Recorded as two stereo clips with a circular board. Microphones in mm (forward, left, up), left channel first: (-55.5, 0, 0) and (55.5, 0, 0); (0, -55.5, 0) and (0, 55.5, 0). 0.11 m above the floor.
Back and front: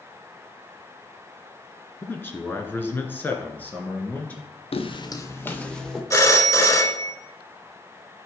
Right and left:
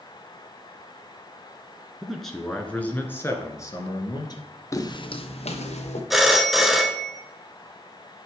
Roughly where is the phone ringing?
Behind.